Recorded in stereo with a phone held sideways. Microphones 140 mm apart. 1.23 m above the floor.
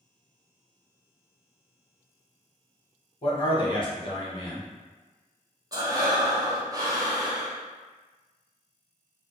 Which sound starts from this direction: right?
Breathing, at 5.7 s.